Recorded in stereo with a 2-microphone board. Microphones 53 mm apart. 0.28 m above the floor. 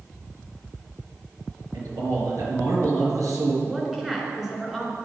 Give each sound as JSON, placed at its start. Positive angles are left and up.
{"t": 1.7, "sound": "a man speaking", "side_deg": -75, "distance_m": 4.5}
{"t": 3.6, "sound": "a woman speaking", "side_deg": -5, "distance_m": 3.5}